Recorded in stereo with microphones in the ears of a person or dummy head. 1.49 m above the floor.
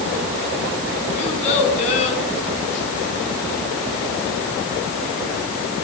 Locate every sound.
1.2 s a child speaking: 35° left (ahead or behind), 9 m